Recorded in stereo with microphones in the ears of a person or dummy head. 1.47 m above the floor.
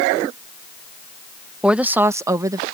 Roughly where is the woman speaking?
Centre.